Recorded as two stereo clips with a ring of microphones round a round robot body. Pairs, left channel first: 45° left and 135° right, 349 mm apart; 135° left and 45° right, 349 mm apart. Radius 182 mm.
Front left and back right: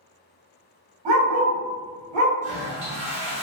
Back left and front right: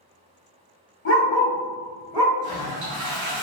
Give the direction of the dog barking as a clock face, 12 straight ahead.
5 o'clock.